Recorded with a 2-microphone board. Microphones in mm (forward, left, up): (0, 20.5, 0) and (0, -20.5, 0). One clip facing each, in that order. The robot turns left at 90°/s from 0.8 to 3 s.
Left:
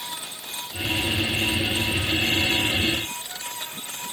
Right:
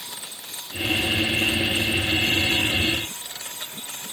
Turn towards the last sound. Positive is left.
No sound to turn to.